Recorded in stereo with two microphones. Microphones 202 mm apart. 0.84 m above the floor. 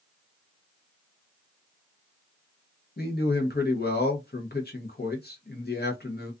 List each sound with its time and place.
3.0 s a man speaking: 55° left (ahead or behind), 0.8 m